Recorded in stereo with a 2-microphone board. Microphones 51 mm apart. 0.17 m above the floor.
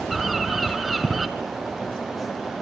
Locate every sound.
0.1 s a bird: 5° right (ahead or behind), 1.7 m